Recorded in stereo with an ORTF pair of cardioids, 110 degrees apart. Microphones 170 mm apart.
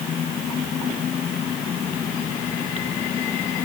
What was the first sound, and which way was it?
Only background noise.